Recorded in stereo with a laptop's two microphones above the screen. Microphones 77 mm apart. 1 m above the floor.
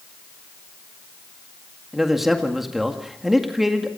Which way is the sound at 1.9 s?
5° right (ahead or behind).